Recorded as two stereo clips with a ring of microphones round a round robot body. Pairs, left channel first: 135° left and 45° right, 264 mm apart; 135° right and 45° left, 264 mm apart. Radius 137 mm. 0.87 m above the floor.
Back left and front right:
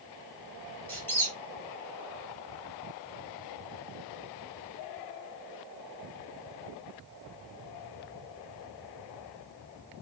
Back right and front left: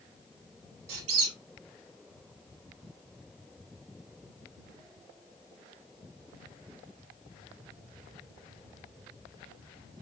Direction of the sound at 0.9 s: 55° left.